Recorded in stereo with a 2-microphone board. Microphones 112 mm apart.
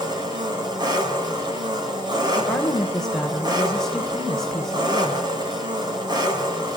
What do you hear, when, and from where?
0.0 s an engine running: 40° right (ahead or behind), 3.5 m
2.4 s a woman speaking: 5° left (ahead or behind), 2 m